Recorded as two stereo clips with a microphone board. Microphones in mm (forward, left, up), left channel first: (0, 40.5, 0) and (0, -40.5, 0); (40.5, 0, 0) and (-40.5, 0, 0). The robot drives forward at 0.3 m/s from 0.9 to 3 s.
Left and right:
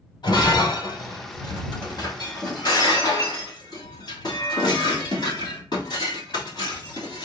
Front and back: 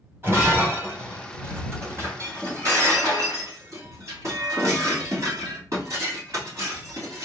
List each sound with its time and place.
0.2 s breaking glass: 120° left, 2.5 m; by 7.2 s 130° left, 3 m